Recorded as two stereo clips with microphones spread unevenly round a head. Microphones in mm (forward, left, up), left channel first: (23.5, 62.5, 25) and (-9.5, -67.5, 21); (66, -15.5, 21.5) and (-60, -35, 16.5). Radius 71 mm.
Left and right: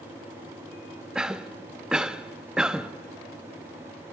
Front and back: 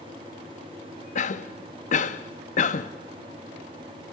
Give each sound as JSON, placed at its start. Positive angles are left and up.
{"t": 1.1, "sound": "a cough", "azimuth_deg": -20, "distance_m": 1.1}